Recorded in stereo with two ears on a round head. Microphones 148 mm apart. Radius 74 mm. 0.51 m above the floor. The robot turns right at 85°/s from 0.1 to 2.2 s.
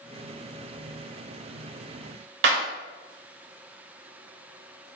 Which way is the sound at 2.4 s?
70° right (ahead or behind).